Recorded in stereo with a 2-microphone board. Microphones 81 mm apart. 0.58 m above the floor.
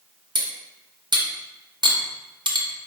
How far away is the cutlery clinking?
About 0.5 m.